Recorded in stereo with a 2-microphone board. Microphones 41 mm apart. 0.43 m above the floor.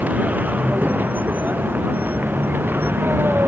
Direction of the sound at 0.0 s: 40° right (ahead or behind).